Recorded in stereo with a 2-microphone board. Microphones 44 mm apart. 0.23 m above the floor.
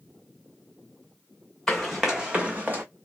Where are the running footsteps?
Centre (ahead or behind), 0.9 m; by 2.8 s 45° right (ahead or behind), 0.9 m.